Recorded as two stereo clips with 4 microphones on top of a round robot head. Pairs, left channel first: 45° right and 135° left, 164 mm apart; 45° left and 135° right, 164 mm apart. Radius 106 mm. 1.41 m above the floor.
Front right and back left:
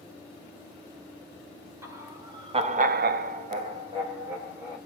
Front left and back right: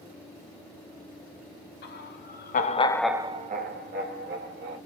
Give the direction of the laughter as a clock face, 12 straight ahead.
10 o'clock.